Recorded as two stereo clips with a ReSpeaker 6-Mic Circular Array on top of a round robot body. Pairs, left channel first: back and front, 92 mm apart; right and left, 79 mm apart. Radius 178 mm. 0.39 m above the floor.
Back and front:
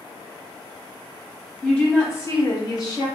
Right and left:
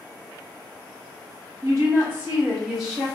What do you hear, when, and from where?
1.6 s a woman speaking: 110° left, 1.7 m; by 3.1 s 175° right, 1.7 m